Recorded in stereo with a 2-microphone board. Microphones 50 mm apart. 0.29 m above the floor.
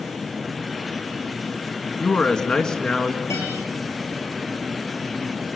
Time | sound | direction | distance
2.0 | a man speaking | 20° left (ahead or behind) | 2 m
3.3 | a guitar | 75° left (ahead or behind) | 8.5 m